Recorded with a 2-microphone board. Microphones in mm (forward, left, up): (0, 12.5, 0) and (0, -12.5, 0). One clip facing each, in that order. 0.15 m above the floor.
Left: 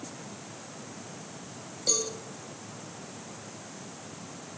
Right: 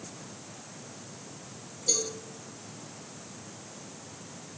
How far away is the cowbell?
About 6 m.